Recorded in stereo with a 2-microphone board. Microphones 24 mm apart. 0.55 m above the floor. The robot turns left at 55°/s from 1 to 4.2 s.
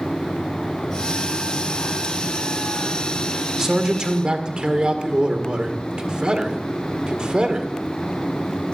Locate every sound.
3.6 s a man speaking: 15° right, 1.7 m; by 7.7 s 50° right, 1.7 m